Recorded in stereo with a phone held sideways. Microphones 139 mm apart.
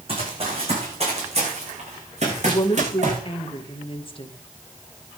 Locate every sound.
0.1 s running footsteps: 40° right (ahead or behind), 6.5 m; by 3.2 s 55° right (ahead or behind), 8.5 m
2.5 s a woman speaking: 40° left (ahead or behind), 1.9 m